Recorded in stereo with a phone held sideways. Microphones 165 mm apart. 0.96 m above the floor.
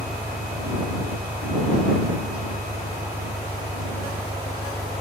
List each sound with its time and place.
0.0 s an engine running: 45° right (ahead or behind)